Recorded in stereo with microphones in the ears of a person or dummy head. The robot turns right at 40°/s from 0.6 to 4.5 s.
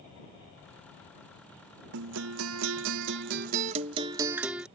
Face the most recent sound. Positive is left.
turn(degrees=-5)